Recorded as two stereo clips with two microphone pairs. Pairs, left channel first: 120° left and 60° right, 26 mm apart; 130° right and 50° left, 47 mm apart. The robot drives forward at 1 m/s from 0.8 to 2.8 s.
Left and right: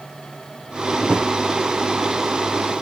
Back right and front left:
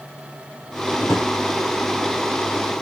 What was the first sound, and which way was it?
A drawer, 110° right.